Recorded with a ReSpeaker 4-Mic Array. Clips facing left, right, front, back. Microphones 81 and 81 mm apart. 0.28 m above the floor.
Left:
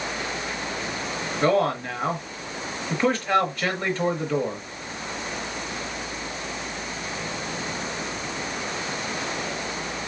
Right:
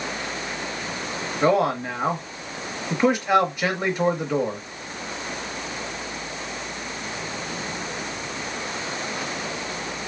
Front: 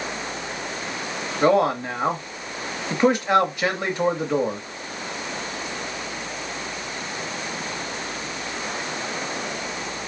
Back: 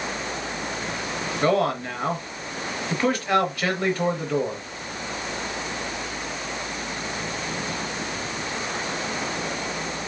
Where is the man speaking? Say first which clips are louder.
Right 1 dB, front 4 dB; 35° right, 0.9 m.